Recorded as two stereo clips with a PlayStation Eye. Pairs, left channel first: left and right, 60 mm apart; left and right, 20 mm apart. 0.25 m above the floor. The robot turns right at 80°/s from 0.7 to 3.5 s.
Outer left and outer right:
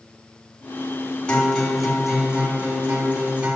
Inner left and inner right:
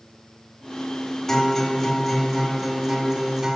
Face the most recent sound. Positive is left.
turn(degrees=-15)  # may be behind; listen again after turning